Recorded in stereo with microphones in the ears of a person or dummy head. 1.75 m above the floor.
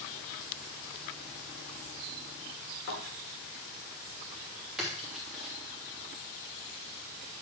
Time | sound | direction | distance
2.9 | a thud | 65° left (ahead or behind) | 4.5 m
4.8 | a splash | 5° right (ahead or behind) | 3 m